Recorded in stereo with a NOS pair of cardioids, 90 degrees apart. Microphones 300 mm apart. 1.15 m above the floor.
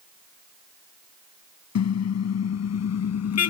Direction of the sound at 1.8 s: 60° left.